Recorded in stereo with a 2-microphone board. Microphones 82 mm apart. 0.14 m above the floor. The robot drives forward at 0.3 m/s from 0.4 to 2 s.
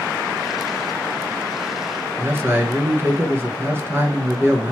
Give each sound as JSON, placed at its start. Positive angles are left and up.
{"t": 2.2, "sound": "a man speaking", "side_deg": -30, "distance_m": 1.5}